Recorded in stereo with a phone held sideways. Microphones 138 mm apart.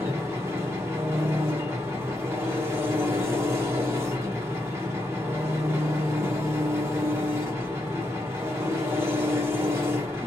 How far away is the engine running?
About 1.1 m.